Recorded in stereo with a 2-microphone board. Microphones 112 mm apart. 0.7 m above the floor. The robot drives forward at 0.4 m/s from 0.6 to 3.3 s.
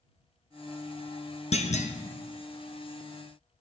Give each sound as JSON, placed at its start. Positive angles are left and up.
{"t": 1.5, "sound": "a clunk", "side_deg": 75, "distance_m": 0.6}